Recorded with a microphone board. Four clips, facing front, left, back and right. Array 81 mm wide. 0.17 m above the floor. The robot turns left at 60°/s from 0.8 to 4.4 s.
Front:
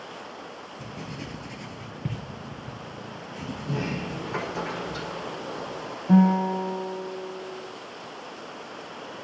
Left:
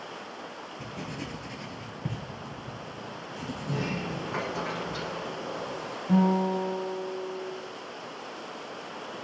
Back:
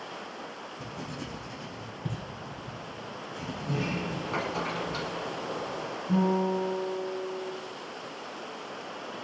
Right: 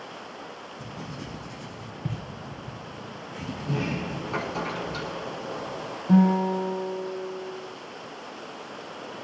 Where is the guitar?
30° right, 2.5 m.